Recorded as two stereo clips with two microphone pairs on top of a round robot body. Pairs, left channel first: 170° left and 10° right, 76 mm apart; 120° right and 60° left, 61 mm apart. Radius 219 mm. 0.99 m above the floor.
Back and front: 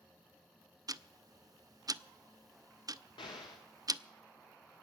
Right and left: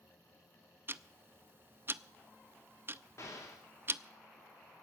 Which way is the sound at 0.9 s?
10° left.